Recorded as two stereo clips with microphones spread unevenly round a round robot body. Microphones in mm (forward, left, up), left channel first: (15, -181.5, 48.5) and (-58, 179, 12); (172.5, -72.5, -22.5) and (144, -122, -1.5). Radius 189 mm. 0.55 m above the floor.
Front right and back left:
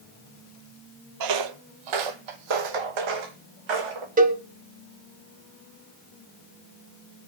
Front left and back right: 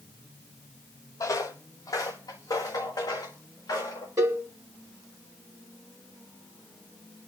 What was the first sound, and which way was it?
Footsteps, 90° left.